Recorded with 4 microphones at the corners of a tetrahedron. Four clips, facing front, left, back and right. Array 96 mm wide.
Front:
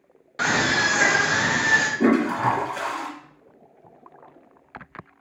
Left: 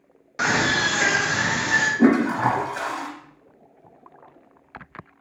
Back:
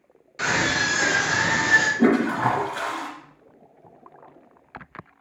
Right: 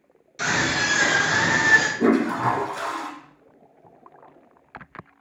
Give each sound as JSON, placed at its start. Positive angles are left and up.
{"t": 0.4, "sound": "a scream", "azimuth_deg": 60, "distance_m": 1.1}
{"t": 2.0, "sound": "a toilet flushing", "azimuth_deg": 105, "distance_m": 0.8}